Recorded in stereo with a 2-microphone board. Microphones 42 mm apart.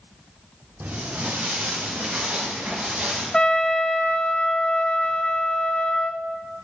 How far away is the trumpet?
About 0.6 m.